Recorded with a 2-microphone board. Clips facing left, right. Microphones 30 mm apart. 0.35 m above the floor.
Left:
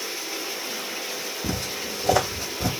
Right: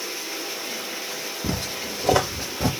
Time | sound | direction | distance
1.4 | footsteps | 30° right (ahead or behind) | 3 m